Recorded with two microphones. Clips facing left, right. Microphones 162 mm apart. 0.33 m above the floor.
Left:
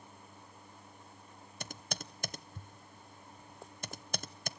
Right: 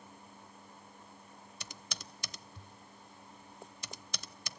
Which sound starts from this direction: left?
Typing on a keyboard, at 1.6 s.